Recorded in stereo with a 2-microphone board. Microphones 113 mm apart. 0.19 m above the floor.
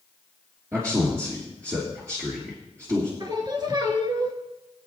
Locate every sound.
0.7 s a man speaking: 30° right (ahead or behind), 3 m
3.2 s singing: 40° right (ahead or behind), 1.6 m